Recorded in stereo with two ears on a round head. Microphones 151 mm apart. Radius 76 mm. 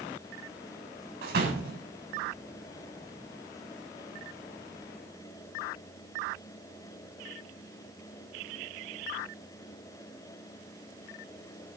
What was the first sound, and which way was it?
A door slam, 65° right (ahead or behind).